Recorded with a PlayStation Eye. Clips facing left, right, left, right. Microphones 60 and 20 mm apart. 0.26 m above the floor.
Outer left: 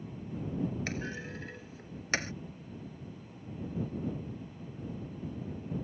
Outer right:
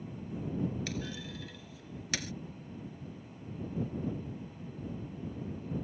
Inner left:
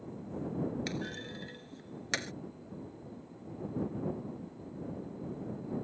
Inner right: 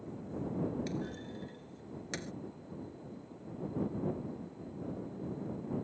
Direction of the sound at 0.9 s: 35° left (ahead or behind).